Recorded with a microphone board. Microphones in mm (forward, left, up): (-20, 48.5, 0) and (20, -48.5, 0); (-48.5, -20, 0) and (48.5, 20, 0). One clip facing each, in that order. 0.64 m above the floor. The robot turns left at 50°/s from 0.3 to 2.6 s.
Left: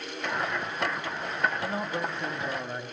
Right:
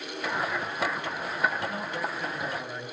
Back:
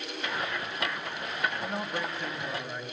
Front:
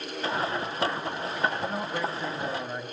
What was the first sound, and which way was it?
A man speaking, 115° left.